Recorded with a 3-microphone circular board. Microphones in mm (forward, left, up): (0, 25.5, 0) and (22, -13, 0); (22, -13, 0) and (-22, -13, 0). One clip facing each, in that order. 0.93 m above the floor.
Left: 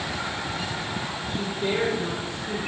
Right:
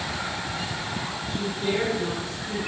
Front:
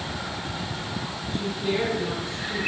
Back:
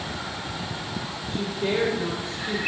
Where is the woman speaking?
170° right, 1.7 m.